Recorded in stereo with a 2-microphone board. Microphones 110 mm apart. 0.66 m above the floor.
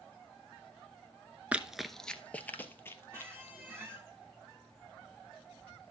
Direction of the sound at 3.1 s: 20° right (ahead or behind).